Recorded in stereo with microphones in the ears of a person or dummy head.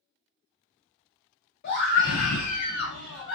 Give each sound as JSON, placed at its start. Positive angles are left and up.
{"t": 1.6, "sound": "a scream", "side_deg": 55, "distance_m": 0.9}